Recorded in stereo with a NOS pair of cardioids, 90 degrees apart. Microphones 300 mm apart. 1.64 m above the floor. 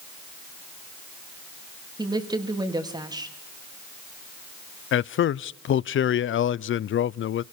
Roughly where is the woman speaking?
Ahead.